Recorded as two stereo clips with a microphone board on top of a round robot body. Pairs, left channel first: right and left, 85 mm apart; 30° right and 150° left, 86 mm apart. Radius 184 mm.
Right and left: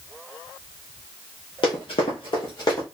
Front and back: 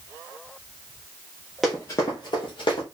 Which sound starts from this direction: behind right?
Running footsteps, at 1.6 s.